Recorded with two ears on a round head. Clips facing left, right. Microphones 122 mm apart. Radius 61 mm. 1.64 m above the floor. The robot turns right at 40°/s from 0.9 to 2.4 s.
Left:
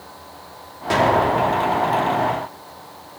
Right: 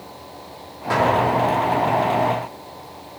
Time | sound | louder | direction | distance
0.9 | an explosion | left 1 dB | 30° left | 3.5 m